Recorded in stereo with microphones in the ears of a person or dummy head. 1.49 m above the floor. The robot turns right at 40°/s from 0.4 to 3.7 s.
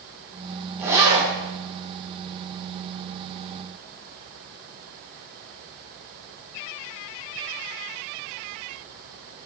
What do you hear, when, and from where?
0.8 s a zipper: 10° right (ahead or behind), 9.5 m; by 1.3 s 30° right (ahead or behind), 9.5 m